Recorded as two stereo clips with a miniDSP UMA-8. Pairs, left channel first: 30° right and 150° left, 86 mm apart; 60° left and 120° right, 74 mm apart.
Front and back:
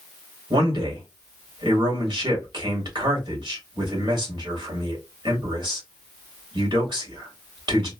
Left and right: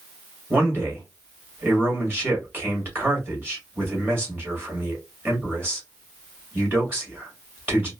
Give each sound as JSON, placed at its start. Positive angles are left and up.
{"t": 0.5, "sound": "a man speaking", "azimuth_deg": 180, "distance_m": 2.0}